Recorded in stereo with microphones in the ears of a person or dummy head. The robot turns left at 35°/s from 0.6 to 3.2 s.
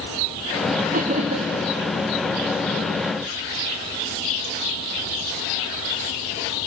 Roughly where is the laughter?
Right.